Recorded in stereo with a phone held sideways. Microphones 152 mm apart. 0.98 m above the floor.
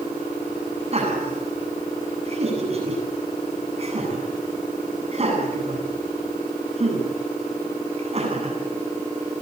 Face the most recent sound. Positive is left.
turn(degrees=-45)  # may be behind; listen again after turning